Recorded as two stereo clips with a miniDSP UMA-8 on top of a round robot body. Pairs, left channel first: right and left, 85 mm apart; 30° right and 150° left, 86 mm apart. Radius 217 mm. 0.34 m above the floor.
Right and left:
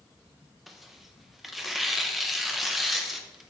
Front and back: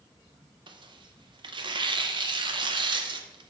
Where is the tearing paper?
Straight behind, 0.6 m.